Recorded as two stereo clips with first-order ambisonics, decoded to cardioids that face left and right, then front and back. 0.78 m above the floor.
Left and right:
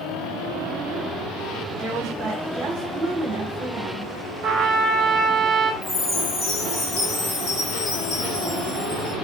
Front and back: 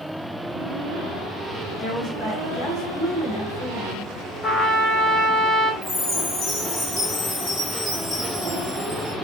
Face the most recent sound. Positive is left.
turn(degrees=55)